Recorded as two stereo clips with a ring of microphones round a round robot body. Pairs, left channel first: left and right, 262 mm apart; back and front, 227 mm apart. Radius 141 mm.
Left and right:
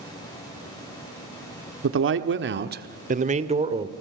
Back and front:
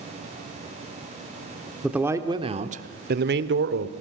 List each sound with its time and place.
1.8 s a man speaking: 85° right, 1.2 m; by 3.9 s 20° right, 1.7 m